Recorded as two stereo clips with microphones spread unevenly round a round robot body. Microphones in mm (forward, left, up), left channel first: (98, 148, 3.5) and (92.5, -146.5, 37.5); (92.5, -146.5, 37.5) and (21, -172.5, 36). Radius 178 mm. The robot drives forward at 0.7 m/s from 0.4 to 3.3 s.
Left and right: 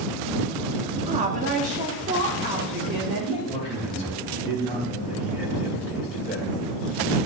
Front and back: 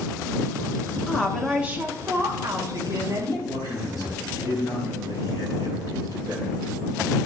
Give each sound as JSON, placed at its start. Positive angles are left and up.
{"t": 1.1, "sound": "a woman speaking", "azimuth_deg": -40, "distance_m": 0.9}
{"t": 3.5, "sound": "a man speaking", "azimuth_deg": 165, "distance_m": 2.5}